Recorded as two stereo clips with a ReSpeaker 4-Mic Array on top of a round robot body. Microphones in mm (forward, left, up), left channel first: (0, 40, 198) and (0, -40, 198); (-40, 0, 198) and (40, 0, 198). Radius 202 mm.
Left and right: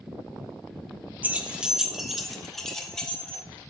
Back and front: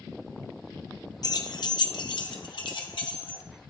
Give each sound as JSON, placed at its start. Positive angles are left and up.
{"t": 1.2, "sound": "keys jangling", "azimuth_deg": -160, "distance_m": 0.9}